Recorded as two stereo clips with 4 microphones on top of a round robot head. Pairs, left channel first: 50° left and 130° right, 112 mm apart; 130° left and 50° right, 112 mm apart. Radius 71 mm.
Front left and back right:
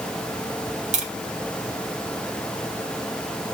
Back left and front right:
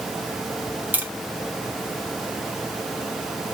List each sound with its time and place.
0.9 s tapping: 125° right, 1.4 m